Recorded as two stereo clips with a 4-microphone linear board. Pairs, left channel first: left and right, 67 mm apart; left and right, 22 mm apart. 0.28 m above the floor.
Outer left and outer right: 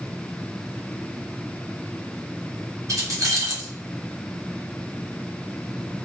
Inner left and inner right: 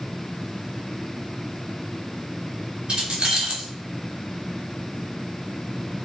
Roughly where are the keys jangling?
Right.